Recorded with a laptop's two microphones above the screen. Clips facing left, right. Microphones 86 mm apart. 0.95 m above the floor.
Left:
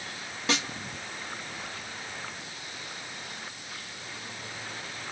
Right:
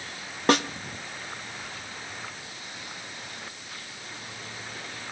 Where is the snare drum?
50° right (ahead or behind), 0.7 m.